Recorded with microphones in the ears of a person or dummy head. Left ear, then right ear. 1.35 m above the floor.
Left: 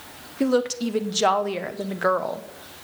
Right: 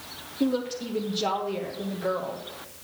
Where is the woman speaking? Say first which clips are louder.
Left 6 dB; 60° left (ahead or behind), 0.7 m.